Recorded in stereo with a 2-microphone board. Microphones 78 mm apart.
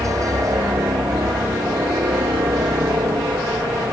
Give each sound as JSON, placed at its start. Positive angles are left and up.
{"t": 0.0, "sound": "a helicopter", "side_deg": -45}